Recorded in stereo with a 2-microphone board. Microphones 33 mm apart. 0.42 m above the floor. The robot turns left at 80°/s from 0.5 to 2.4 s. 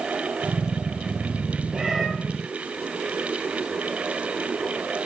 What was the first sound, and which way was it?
A cat meowing, 20° right (ahead or behind).